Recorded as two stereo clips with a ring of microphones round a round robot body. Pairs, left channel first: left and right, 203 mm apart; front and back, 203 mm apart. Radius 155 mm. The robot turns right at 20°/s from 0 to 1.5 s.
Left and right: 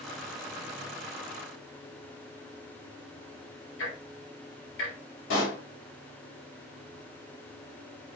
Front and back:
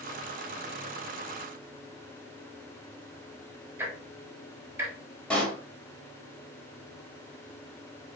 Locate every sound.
3.8 s ticking: 105° left, 0.8 m
5.3 s a pop: 85° left, 1.0 m